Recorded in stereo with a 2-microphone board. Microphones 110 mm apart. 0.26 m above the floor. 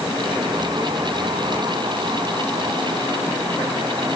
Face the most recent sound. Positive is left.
No sound to turn to.